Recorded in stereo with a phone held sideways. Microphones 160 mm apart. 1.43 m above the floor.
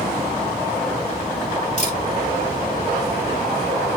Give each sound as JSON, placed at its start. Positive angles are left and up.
{"t": 1.8, "sound": "a camera shutter", "side_deg": 50, "distance_m": 2.0}